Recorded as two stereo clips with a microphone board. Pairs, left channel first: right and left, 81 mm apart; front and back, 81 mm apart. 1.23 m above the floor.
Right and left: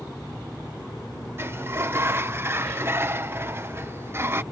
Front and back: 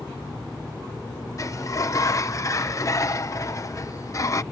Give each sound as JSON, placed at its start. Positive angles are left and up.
{"t": 1.4, "sound": "a sliding door", "azimuth_deg": 40}